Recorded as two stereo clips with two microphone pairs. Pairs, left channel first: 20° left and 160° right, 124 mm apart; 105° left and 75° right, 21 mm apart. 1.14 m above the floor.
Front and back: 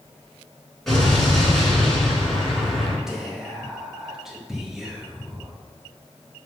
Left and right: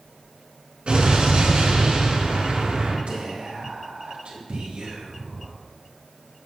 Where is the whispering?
75° right, 2.0 m.